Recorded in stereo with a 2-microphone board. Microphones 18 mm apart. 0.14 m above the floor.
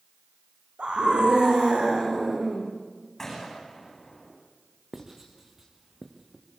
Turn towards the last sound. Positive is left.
turn(degrees=-25)  # may be behind; listen again after turning